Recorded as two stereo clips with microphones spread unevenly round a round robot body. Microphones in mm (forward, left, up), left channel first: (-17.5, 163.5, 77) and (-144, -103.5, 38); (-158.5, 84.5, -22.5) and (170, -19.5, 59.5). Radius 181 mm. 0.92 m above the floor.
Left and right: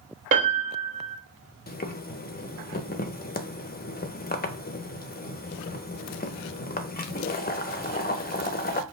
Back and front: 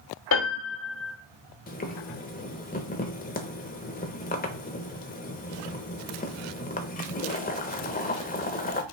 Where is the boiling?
120° left, 0.7 m.